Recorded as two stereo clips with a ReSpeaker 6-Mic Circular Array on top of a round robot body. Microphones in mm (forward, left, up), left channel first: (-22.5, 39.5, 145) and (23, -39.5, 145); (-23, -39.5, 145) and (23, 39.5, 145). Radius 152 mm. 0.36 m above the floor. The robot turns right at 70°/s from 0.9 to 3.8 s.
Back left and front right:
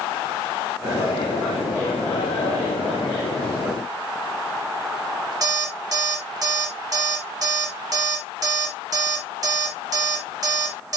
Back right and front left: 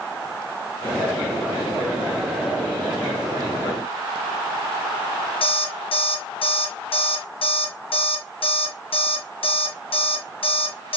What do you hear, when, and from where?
5.4 s an alarm clock: 110° right, 4 m